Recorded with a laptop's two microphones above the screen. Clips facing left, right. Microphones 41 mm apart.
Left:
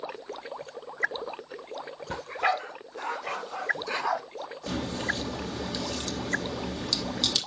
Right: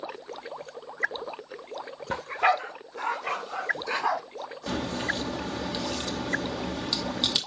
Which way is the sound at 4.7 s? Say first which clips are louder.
Right 1 dB; 20° right (ahead or behind).